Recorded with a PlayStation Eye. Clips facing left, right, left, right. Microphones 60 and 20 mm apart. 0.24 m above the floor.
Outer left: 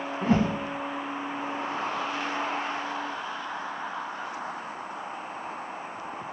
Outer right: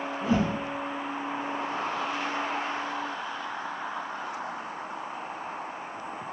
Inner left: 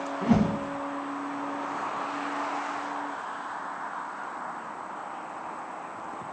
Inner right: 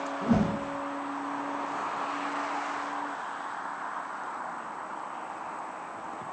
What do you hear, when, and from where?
0.2 s a whoosh: 50° left (ahead or behind), 0.6 m